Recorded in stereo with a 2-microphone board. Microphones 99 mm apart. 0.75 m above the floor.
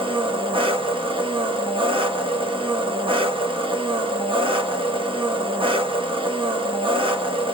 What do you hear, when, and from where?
0.0 s an engine running: 60° right (ahead or behind), 1.0 m